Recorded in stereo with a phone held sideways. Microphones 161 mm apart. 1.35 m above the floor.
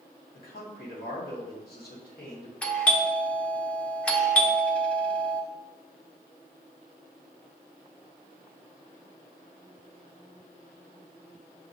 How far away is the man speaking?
About 1.5 m.